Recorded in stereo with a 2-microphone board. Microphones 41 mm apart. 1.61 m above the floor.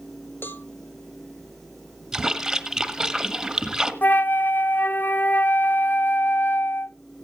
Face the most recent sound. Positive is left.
turn(degrees=50)  # may be behind; listen again after turning